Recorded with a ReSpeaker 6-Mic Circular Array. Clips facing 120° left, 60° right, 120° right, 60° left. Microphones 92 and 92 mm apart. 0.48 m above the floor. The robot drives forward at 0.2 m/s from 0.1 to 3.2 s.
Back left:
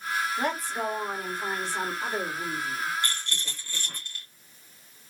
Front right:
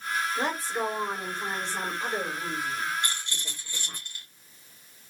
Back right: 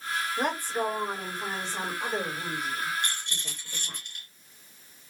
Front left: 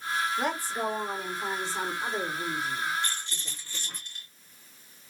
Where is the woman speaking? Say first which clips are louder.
Even, back right 1 dB; 115° right, 2.5 m; by 4.0 s 125° right, 2.5 m.